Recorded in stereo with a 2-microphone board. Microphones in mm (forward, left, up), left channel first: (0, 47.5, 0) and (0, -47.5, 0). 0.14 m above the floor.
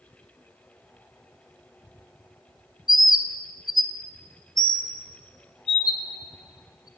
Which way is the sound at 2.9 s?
50° left (ahead or behind).